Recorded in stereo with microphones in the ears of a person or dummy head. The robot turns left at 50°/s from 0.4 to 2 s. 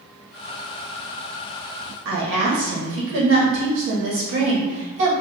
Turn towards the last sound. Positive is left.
turn(degrees=-70)  # may be behind; listen again after turning